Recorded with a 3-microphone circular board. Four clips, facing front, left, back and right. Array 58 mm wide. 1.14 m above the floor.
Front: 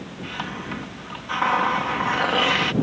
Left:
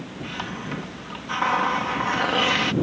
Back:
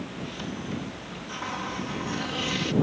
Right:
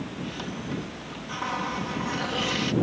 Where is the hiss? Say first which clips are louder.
Left 6 dB, front 7 dB; 30° left.